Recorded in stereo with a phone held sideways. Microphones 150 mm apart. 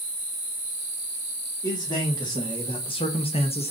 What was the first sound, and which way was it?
A man speaking, 25° left (ahead or behind).